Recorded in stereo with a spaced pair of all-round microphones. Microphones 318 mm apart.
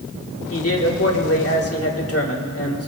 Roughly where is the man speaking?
Left.